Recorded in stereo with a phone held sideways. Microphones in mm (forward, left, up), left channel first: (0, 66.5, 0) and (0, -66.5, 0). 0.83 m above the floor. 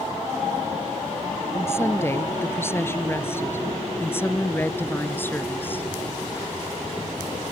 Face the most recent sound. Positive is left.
turn(degrees=15)  # may be behind; listen again after turning